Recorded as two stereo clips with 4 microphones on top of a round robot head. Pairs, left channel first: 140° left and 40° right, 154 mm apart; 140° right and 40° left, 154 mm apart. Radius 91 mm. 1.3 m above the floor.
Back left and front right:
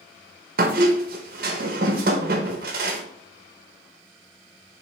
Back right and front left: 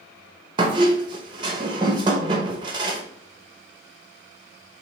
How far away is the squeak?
About 0.6 m.